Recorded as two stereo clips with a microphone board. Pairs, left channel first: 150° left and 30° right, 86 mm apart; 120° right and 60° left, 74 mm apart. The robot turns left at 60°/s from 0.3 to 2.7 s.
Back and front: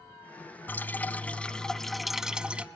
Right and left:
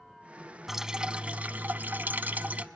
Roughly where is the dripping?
Behind left.